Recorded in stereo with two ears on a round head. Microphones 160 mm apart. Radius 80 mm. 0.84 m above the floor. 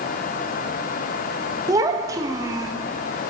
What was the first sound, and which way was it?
A child speaking, 20° right (ahead or behind).